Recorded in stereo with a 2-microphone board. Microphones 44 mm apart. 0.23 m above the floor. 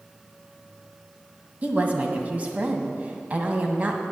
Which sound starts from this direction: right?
A woman speaking, at 1.6 s.